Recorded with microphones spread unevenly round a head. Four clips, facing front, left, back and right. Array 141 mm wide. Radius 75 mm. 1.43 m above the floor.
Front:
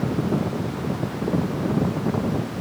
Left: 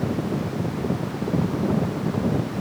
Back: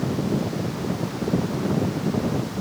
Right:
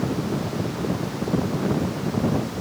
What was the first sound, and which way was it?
Only background noise.